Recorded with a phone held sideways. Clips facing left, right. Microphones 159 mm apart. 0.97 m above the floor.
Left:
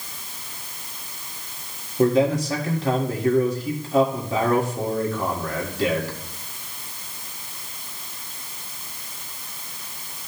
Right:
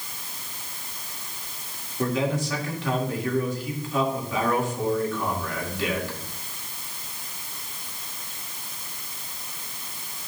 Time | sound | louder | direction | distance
2.0 | a man speaking | left 7 dB | 40° left (ahead or behind) | 1.8 m